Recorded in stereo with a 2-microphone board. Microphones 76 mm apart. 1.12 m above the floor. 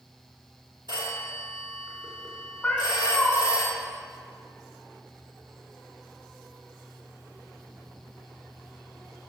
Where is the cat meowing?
15° left (ahead or behind), 1.4 m.